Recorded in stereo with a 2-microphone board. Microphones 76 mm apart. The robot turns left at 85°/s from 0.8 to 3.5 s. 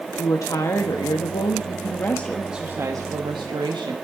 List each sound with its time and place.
0.2 s a woman speaking: 135° left, 1.2 m; by 4.0 s 95° right, 1.2 m